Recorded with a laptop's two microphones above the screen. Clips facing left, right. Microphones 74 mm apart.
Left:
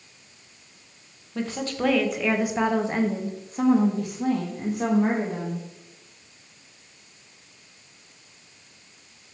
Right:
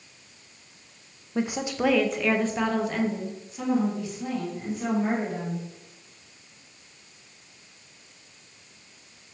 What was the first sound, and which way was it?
A woman speaking, 20° right (ahead or behind).